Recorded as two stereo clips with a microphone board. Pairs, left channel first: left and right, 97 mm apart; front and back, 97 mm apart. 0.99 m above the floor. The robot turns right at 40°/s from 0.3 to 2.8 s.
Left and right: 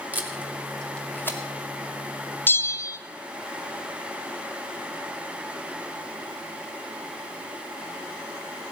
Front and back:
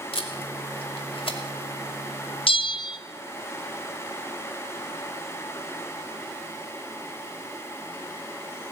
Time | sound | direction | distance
0.1 | tape being pulled | 20° right | 2.5 m
2.5 | a bell | 20° left | 0.7 m